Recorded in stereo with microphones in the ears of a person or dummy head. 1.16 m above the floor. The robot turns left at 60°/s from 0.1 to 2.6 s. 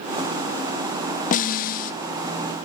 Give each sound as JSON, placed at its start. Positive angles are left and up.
{"t": 1.3, "sound": "a snare drum", "azimuth_deg": 115, "distance_m": 0.6}